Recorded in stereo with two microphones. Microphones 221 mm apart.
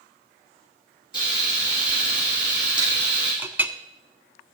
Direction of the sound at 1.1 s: 15° right (ahead or behind).